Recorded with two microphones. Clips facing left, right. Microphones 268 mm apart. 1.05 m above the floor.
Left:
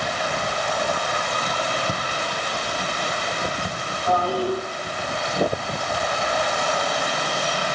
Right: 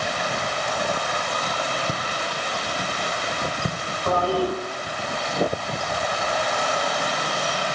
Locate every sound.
1.9 s footsteps: 5° right (ahead or behind), 1.6 m; by 3.8 s 35° right (ahead or behind), 2 m
4.1 s a toilet flushing: 70° right (ahead or behind), 6 m